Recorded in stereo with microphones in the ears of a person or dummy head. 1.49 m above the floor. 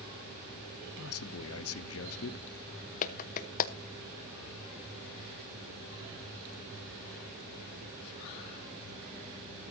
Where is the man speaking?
75° left (ahead or behind), 0.9 m.